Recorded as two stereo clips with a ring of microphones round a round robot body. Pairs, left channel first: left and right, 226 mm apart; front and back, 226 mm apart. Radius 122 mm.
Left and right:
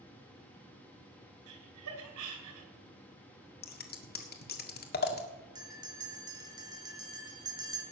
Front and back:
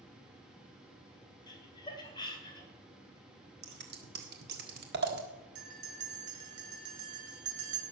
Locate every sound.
1.5 s laughter: 70° right, 4 m
3.6 s scissors: 135° left, 1.6 m
5.5 s a bell: 160° right, 2.5 m